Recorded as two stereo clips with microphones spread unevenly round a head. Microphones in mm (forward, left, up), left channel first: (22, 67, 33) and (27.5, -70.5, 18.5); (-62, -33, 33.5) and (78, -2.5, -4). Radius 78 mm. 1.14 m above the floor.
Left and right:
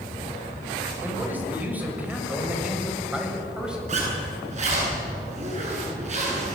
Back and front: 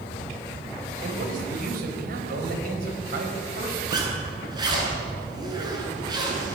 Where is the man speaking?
10° right, 6 m; by 3.8 s 5° right, 7.5 m.